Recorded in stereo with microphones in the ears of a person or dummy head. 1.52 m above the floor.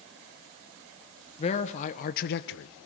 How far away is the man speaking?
About 1.3 m.